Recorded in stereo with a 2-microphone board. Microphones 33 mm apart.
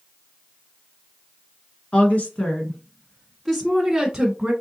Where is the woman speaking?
45° left (ahead or behind), 1.5 m; by 4.5 s 20° right (ahead or behind), 1.2 m.